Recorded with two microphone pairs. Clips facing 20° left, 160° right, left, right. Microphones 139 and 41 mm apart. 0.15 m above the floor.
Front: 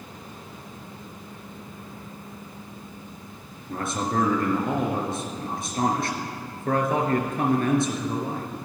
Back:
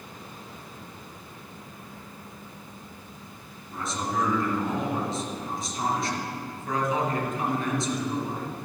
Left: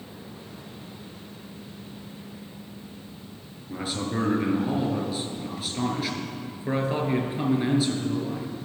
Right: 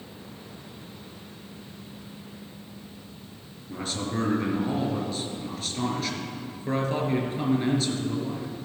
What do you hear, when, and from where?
3.7 s a man speaking: 10° left, 3 m